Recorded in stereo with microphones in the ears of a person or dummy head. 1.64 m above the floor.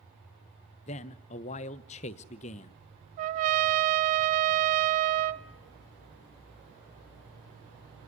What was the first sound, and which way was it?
A man speaking, 40° left (ahead or behind).